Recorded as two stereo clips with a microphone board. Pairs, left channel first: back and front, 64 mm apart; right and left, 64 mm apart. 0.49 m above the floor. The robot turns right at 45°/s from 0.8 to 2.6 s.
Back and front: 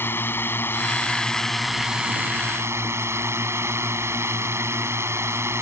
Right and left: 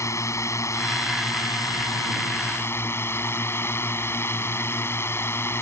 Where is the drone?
125° right; by 5.6 s 45° right.